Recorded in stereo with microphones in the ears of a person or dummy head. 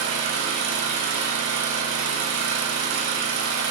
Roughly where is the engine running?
Right.